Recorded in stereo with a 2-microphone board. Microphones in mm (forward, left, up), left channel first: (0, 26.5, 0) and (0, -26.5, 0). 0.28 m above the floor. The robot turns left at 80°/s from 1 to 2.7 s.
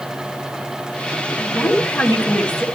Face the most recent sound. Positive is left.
turn(degrees=20)